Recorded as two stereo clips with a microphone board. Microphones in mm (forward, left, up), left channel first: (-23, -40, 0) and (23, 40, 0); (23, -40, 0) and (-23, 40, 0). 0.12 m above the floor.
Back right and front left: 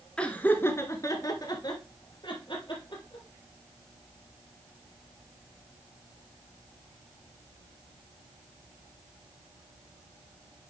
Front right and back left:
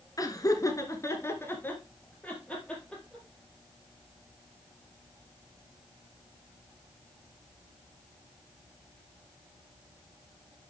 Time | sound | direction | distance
0.2 | laughter | 45° right | 1.5 m